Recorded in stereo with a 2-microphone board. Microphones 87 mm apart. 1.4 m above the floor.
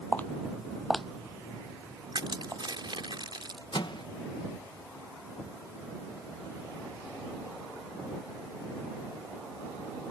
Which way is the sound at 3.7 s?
65° left (ahead or behind).